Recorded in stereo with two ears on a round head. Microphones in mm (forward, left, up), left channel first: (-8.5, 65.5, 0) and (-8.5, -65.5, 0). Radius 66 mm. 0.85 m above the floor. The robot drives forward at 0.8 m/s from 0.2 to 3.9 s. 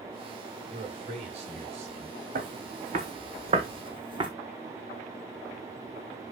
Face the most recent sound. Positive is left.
turn(degrees=-35)  # may be behind; listen again after turning